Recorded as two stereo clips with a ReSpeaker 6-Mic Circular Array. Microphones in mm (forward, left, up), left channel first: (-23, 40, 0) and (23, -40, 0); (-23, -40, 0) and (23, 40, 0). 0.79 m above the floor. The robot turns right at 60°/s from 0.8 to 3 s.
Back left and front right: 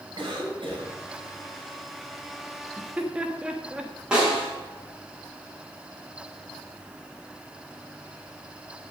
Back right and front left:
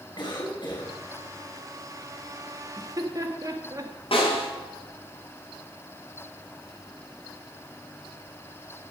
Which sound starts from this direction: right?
A cough, at 0.2 s.